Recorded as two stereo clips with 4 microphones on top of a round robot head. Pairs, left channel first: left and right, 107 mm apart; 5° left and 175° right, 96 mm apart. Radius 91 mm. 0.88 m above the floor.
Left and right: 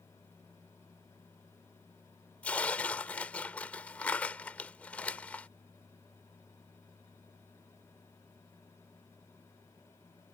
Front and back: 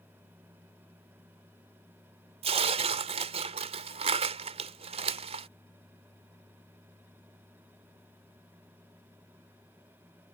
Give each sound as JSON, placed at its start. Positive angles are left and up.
{"t": 2.4, "sound": "tearing paper", "azimuth_deg": 170}